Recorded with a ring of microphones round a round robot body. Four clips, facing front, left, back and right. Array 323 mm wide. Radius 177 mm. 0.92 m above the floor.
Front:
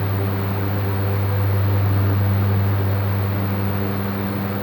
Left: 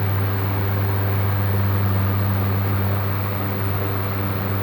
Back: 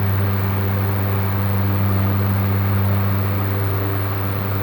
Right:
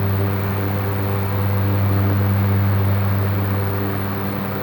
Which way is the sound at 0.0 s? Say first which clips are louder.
Right 3 dB, back 1 dB; 165° right.